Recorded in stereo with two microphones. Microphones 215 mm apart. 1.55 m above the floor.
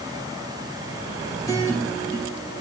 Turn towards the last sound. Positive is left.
turn(degrees=15)  # may be behind; listen again after turning